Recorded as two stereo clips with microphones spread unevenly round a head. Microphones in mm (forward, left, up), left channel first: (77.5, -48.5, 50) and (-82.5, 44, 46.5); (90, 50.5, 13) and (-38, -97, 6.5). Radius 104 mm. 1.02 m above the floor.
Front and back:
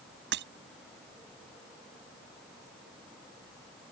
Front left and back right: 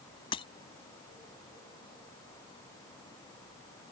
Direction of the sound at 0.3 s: 115° left.